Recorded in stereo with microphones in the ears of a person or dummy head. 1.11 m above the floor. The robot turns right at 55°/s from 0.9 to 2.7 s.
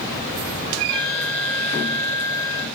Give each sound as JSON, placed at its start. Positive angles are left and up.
{"t": 0.9, "sound": "a flute", "azimuth_deg": 40, "distance_m": 0.7}